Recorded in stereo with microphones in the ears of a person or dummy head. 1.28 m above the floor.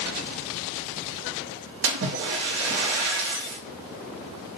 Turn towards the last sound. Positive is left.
turn(degrees=-55)  # may be behind; listen again after turning